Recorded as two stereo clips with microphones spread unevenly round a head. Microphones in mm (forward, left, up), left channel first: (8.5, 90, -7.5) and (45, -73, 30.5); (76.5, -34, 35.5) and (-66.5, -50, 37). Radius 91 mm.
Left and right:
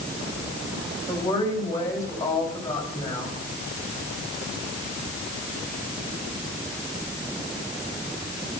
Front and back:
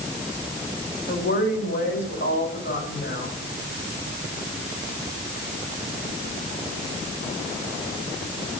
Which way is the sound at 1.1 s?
30° left.